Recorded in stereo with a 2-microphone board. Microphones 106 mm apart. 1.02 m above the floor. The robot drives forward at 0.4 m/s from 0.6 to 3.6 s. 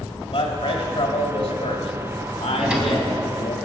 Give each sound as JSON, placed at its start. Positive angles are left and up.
{"t": 0.3, "sound": "a man speaking", "side_deg": 60, "distance_m": 2.5}
{"t": 2.5, "sound": "a drawer", "side_deg": -10, "distance_m": 2.0}